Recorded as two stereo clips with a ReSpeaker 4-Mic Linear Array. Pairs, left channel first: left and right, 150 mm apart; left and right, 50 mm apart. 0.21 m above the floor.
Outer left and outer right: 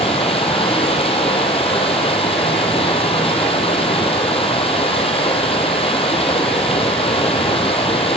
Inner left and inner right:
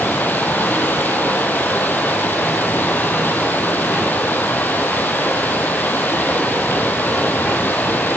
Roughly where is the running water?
Left.